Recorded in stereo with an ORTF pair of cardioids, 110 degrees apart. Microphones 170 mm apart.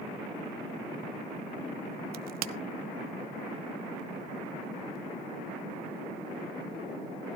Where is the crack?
65° right, 0.9 m.